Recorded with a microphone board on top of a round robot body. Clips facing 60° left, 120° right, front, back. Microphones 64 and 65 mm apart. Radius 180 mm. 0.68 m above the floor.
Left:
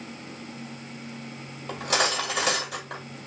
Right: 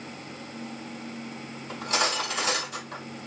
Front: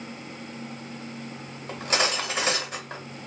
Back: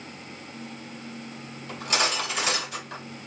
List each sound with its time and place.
1.7 s cutlery clinking: 55° left, 2.5 m